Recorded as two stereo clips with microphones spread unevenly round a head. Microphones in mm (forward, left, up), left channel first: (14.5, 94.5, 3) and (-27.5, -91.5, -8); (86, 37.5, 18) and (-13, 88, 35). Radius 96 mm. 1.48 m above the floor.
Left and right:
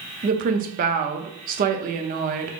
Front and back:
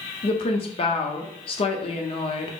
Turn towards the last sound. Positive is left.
turn(degrees=-60)